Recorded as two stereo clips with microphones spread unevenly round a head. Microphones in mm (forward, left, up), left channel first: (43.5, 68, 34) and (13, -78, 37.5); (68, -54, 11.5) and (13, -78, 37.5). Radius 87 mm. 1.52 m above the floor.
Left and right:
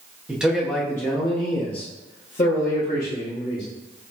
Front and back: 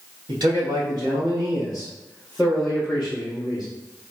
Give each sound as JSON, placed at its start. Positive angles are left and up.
{"t": 0.3, "sound": "a man speaking", "azimuth_deg": 175, "distance_m": 1.0}